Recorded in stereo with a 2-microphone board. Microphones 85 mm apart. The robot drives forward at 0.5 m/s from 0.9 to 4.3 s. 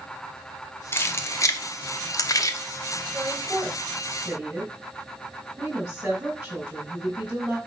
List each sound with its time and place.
0.9 s keys jangling: 30° left (ahead or behind), 0.8 m; by 2.6 s 40° left (ahead or behind), 0.7 m
3.1 s a woman speaking: 20° right (ahead or behind), 2.0 m; by 7.6 s 15° right (ahead or behind), 2.5 m